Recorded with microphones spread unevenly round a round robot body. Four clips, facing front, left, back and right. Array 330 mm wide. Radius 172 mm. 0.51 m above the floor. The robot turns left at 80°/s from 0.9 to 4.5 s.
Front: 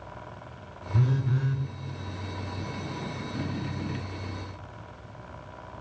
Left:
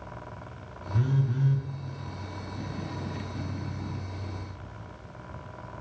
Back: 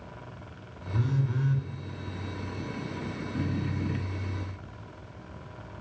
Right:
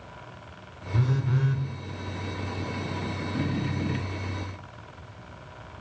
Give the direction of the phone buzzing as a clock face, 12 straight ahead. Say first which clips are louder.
Right 1 dB, front 2 dB; 1 o'clock.